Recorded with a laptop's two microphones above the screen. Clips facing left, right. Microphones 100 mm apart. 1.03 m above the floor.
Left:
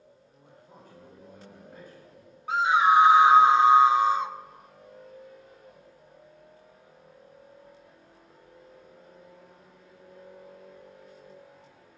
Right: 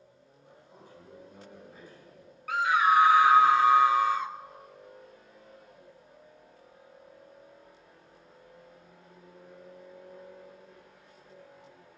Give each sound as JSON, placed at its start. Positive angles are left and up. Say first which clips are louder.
{"t": 0.4, "sound": "a man speaking", "louder": "left 2 dB", "side_deg": 50, "distance_m": 8.0}
{"t": 2.5, "sound": "a scream", "louder": "left 3 dB", "side_deg": 20, "distance_m": 0.6}